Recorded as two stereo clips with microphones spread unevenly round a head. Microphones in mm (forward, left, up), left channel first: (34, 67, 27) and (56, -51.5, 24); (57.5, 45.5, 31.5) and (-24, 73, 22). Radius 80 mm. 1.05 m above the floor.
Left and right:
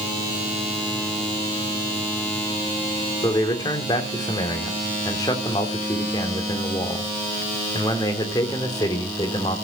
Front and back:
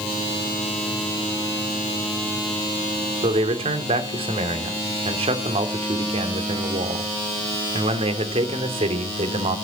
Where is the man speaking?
170° left, 3 m.